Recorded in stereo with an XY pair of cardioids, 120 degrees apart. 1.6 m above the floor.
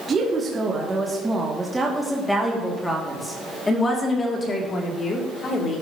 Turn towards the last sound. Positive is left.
turn(degrees=45)